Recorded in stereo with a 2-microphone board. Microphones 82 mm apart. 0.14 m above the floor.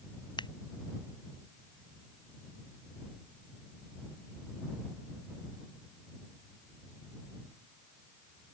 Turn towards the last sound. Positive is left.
turn(degrees=80)